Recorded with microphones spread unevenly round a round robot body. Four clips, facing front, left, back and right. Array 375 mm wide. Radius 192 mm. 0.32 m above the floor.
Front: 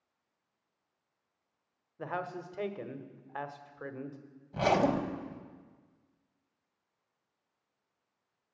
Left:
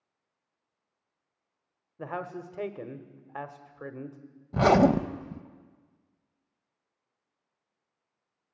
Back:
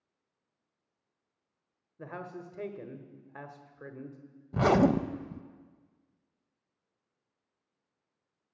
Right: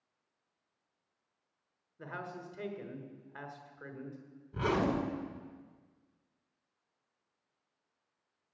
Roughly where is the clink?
No clink in this recording.